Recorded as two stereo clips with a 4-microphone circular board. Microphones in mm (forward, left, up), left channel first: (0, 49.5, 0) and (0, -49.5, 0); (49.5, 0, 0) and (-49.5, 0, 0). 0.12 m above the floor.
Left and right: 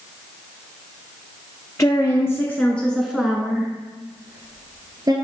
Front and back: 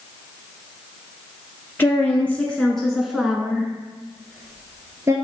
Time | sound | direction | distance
1.8 | a woman speaking | 55° left | 1.3 m